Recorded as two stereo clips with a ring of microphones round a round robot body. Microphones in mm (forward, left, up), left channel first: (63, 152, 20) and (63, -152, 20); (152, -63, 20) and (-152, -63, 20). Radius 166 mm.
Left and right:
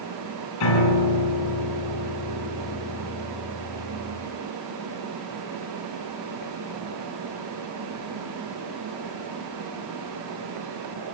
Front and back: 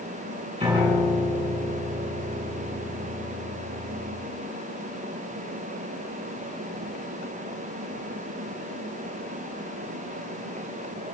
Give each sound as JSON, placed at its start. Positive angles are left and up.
{"t": 0.6, "sound": "a piano", "azimuth_deg": 100, "distance_m": 9.5}